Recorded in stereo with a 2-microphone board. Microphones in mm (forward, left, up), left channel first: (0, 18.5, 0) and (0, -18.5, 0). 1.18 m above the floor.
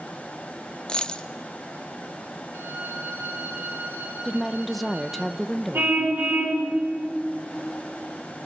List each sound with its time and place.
0.9 s a dropped coin: 25° left (ahead or behind), 0.7 m
2.5 s a violin: 85° right, 8 m
4.2 s a woman speaking: centre (ahead or behind), 0.8 m
5.7 s a car horn: 80° right, 6.5 m